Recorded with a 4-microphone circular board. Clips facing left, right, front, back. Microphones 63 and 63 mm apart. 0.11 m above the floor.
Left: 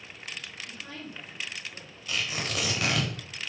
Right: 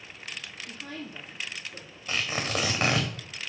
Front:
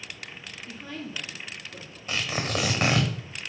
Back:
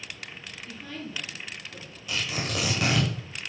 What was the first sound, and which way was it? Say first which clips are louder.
A woman speaking: right 2 dB, front 1 dB; 75° right.